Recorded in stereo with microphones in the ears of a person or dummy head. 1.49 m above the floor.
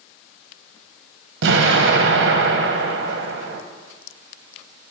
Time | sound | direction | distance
1.4 | an explosion | 70° right (ahead or behind) | 1.2 m